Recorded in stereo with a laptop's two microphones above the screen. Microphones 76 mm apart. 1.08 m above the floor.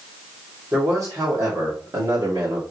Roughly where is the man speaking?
Right.